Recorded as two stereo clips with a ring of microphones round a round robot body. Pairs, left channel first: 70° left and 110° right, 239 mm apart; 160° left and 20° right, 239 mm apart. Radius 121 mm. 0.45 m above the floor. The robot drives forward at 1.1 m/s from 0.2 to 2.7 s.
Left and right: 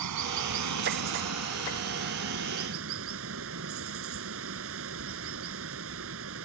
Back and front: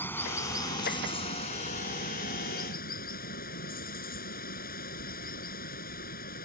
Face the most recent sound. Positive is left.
turn(degrees=-145)